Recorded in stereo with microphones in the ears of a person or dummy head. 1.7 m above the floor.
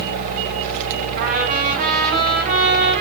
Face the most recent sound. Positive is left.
turn(degrees=-45)  # may be behind; listen again after turning